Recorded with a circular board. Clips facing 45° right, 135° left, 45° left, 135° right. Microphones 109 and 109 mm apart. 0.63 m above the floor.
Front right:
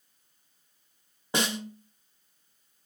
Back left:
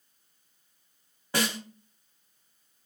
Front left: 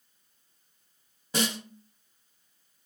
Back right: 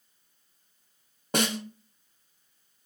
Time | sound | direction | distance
1.3 | a snare drum | 110° right | 0.5 m